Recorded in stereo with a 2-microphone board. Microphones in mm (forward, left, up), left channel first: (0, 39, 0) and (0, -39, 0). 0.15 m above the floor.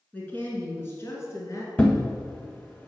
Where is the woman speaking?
20° left (ahead or behind), 1.9 m; by 1.7 s 40° left (ahead or behind), 2.5 m.